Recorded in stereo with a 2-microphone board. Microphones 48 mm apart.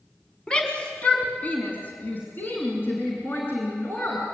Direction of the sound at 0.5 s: 20° left (ahead or behind).